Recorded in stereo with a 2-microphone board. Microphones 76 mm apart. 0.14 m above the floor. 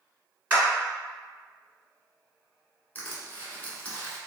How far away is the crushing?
About 1.3 m.